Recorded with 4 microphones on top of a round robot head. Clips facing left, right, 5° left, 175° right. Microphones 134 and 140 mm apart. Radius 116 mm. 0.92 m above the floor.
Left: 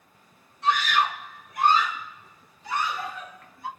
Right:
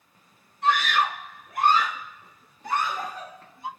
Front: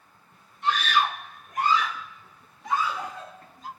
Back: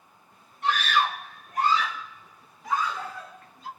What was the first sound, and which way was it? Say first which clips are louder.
A scream: right 1 dB, even; 125° right.